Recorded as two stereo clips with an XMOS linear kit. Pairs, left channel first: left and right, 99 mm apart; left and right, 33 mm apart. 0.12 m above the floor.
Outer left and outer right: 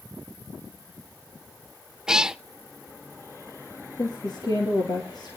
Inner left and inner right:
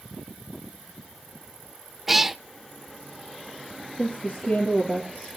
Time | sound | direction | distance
2.1 | a cat meowing | 10° right (ahead or behind) | 0.5 m
4.0 | a woman speaking | 45° left (ahead or behind) | 3 m